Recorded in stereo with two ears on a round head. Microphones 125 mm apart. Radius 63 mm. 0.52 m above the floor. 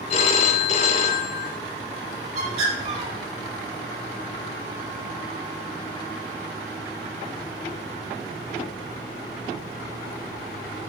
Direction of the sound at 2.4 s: 50° right (ahead or behind).